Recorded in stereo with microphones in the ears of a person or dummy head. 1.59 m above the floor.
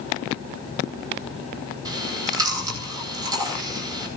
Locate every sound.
1.9 s chewing: 20° right (ahead or behind), 8.5 m